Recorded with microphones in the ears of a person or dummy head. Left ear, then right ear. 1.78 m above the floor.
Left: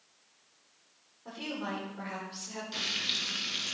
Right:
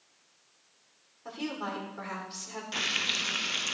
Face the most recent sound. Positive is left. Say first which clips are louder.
# right 3 dB
turn(degrees=-30)  # may be behind; listen again after turning